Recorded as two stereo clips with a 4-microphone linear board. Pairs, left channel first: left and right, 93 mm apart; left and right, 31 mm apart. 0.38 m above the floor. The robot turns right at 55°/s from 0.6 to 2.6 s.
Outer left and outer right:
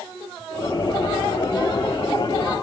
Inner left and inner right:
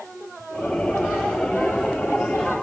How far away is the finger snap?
No finger snap in this recording.